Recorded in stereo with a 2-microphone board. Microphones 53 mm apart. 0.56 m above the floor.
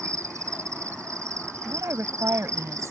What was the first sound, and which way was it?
An insect, 75° right (ahead or behind).